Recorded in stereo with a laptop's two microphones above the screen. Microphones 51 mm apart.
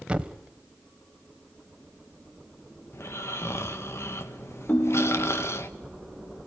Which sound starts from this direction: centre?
A thud, at 0.1 s.